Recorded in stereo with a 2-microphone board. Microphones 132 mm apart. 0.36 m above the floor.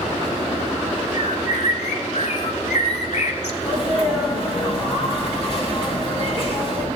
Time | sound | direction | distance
1.1 | a bird | 60° left (ahead or behind) | 0.7 m
3.6 | a sneeze | 45° left (ahead or behind) | 3.5 m